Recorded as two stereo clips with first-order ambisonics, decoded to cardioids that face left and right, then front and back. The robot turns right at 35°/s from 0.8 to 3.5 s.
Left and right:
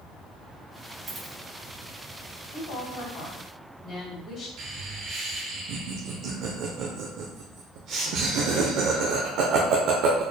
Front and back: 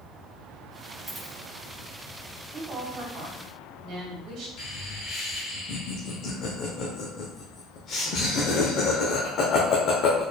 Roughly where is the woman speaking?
Left.